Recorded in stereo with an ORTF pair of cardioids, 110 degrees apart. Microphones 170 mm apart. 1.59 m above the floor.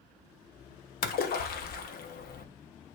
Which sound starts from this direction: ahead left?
A splash, at 1.0 s.